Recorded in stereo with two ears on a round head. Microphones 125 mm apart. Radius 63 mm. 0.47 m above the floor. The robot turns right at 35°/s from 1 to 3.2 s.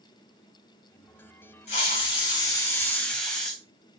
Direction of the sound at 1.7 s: 120° left.